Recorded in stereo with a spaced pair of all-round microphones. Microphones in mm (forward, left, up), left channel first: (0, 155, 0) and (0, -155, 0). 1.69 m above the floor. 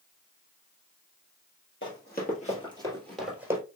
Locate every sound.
1.8 s running footsteps: 40° left (ahead or behind), 2 m; by 3.6 s 10° right (ahead or behind), 2 m